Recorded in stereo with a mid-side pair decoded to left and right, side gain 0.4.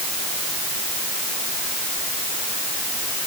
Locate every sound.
Only background noise.